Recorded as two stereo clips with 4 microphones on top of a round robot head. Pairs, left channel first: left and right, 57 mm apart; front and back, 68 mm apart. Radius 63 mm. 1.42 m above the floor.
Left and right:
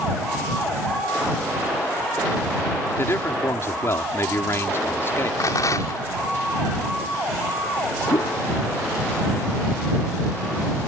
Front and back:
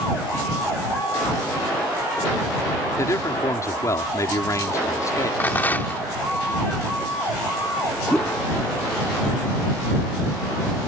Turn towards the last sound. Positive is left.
turn(degrees=80)